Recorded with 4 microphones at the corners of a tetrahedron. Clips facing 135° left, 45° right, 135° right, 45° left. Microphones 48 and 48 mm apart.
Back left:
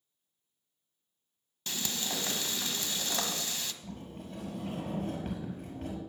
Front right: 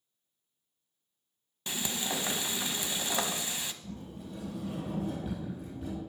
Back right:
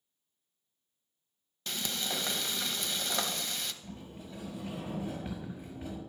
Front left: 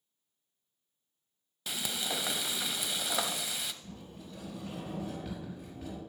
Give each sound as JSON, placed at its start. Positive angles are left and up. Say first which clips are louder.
{"t": 1.7, "sound": "frying", "louder": "front right 2 dB, even", "azimuth_deg": -25, "distance_m": 0.7}
{"t": 3.8, "sound": "a sliding door", "louder": "front right 1 dB, back right 2 dB", "azimuth_deg": 155, "distance_m": 5.0}